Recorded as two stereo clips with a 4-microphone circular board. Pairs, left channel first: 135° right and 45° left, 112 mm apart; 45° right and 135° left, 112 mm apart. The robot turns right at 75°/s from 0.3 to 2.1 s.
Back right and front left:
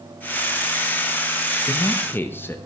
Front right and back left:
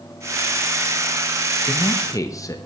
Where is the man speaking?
110° right, 0.5 m; by 2.6 s 80° right, 0.5 m.